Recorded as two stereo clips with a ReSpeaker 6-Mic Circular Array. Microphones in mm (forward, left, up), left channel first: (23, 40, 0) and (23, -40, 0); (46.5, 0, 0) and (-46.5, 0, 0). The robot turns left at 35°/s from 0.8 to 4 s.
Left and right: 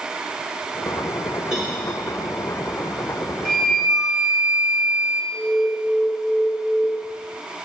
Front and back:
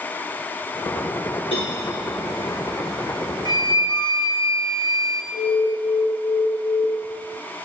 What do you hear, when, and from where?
1.5 s a cowbell: 5° right, 4 m; by 1.8 s 15° right, 4 m
3.5 s a flute: 10° left, 2 m; by 5.2 s 5° right, 2 m
5.3 s an alarm: 20° left, 4 m